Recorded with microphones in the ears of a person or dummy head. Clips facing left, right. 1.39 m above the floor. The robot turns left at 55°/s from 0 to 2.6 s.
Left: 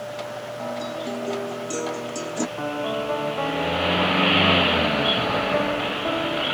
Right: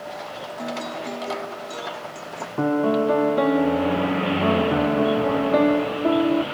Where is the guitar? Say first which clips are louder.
Even; 155° right; by 2.5 s 100° left.